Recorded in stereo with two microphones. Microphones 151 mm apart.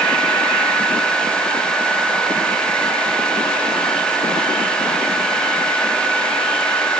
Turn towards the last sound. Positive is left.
No sound to turn to.